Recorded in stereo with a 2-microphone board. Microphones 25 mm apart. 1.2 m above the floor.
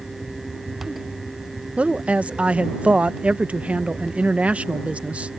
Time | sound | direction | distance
1.8 | a woman speaking | 65° right (ahead or behind) | ?